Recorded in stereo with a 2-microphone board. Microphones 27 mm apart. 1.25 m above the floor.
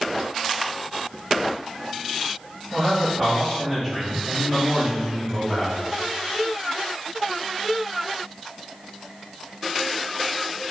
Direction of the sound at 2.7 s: Centre (ahead or behind).